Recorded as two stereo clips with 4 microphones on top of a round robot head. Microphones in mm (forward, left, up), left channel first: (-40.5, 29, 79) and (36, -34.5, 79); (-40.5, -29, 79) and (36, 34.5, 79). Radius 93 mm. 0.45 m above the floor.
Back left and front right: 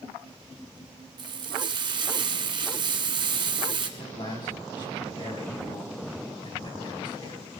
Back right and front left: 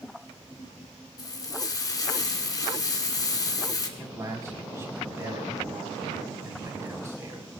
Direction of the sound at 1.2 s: 80° right.